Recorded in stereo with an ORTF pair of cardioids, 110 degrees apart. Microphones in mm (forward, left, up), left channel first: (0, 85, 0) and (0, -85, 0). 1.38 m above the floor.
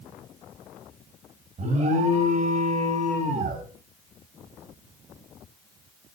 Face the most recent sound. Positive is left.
turn(degrees=-45)